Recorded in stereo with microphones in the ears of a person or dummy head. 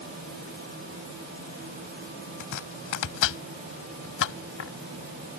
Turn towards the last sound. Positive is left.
turn(degrees=60)  # may be behind; listen again after turning